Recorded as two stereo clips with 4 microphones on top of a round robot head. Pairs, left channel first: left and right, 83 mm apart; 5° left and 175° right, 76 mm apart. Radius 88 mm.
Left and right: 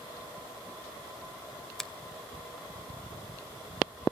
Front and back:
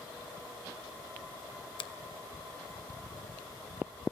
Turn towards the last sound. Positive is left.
turn(degrees=5)